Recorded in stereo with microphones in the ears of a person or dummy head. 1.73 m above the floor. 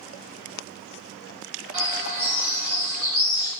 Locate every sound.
1.7 s a bird: 40° right (ahead or behind), 1.4 m